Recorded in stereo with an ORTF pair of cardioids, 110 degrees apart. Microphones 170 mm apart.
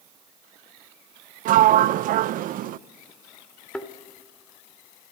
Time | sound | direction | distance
1.4 | a sliding door | 60° right | 0.5 m
3.7 | a thud | 10° left | 1.7 m